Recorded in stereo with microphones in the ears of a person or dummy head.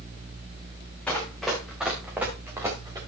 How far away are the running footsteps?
About 5 m.